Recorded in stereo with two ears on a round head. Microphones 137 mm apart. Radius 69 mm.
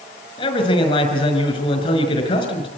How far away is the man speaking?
About 5 m.